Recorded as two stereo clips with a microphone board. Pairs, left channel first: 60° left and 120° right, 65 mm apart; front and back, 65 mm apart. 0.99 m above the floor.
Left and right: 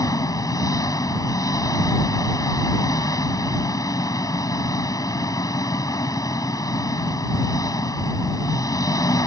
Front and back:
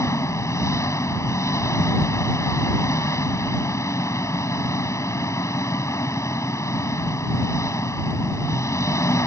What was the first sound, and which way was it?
An engine running, 35° left.